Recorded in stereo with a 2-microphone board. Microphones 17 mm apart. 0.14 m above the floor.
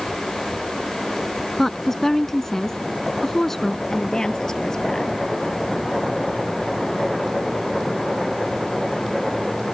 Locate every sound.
1.6 s a woman speaking: 25° left (ahead or behind)
3.9 s a woman speaking: 40° left (ahead or behind)